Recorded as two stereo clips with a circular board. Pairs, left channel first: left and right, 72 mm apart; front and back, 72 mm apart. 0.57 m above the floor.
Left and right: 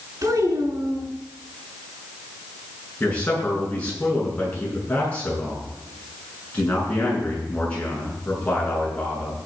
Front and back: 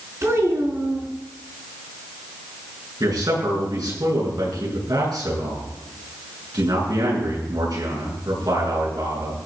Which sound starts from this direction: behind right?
A child speaking, at 0.2 s.